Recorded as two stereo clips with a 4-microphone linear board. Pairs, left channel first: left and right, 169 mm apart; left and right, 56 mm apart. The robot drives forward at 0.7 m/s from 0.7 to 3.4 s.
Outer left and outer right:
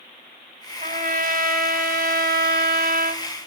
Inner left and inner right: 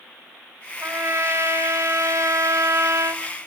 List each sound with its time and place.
0.8 s a trumpet: 50° right (ahead or behind), 2 m; by 3.2 s 60° right (ahead or behind), 1.8 m